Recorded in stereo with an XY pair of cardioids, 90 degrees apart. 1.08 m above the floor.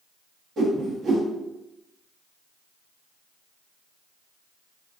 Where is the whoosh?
65° right, 1.2 m.